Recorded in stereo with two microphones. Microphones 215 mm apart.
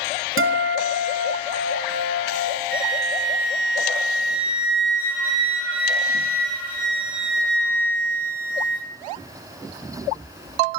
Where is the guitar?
70° right (ahead or behind), 0.7 m.